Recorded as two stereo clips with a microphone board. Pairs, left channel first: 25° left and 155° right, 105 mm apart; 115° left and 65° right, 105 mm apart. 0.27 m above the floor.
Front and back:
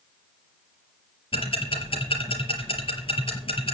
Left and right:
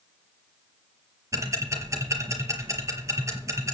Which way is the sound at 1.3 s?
5° right.